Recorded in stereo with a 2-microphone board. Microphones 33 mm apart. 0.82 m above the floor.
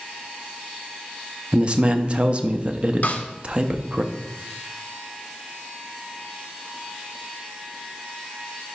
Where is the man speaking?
35° right (ahead or behind), 0.5 m.